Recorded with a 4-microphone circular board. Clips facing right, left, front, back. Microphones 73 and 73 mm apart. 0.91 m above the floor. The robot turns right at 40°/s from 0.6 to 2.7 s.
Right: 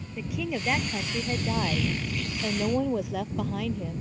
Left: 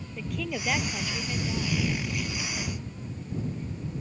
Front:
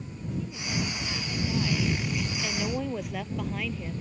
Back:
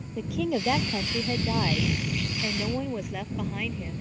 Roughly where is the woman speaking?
Behind.